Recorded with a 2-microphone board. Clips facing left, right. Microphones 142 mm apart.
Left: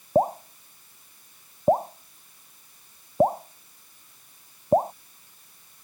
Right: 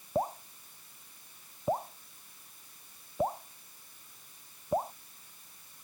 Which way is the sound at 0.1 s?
45° left (ahead or behind).